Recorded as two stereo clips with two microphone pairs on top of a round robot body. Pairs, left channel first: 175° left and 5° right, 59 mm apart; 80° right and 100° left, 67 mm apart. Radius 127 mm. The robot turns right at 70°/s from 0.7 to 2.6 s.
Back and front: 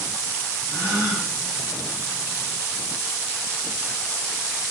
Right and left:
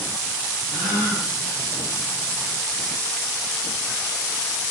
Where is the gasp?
65° right, 1.4 m; by 1.3 s 25° right, 1.4 m.